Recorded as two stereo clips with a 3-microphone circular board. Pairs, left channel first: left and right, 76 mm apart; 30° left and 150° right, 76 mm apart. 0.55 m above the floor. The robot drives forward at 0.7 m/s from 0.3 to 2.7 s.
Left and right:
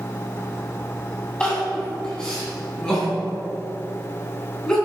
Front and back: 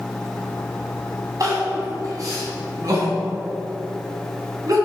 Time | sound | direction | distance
1.4 | crying | 170° left | 3 m